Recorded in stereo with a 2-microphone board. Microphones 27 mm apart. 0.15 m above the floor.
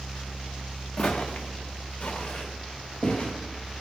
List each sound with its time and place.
1.0 s footsteps: 55° left (ahead or behind), 0.9 m